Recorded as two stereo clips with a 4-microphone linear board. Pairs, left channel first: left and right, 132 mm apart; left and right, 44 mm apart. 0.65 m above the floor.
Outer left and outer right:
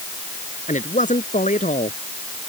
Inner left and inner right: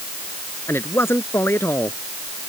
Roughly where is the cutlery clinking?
No cutlery clinking in this recording.